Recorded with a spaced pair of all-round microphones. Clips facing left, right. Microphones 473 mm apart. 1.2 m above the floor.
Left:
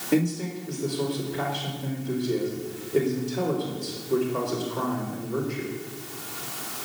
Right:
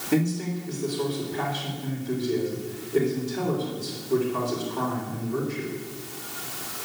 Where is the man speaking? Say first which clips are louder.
Left 1 dB; centre (ahead or behind), 4 m.